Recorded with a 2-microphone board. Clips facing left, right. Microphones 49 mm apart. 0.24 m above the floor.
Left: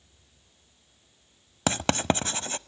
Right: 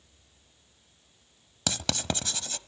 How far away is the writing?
About 0.6 m.